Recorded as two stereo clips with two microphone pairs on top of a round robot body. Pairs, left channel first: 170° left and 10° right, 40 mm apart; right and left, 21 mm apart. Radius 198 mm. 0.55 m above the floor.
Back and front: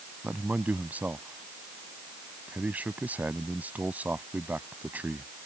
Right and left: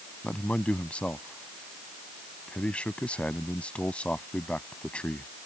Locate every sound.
0.2 s a man speaking: 65° right